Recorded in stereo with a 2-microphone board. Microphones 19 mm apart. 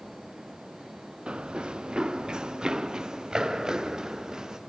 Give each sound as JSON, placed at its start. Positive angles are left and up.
{"t": 1.3, "sound": "running footsteps", "side_deg": -70, "distance_m": 0.8}